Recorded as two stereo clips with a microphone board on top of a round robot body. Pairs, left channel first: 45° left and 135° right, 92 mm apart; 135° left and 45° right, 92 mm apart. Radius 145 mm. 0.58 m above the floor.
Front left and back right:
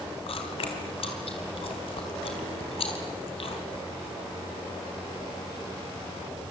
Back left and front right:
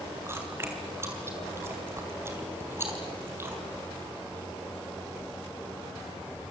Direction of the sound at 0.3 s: 20° left.